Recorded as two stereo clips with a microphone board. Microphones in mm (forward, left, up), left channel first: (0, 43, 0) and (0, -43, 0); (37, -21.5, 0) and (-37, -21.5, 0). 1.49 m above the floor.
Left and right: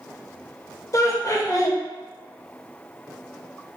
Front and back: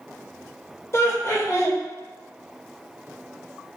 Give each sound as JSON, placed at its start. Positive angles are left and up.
{"t": 0.9, "sound": "laughter", "azimuth_deg": 45, "distance_m": 0.7}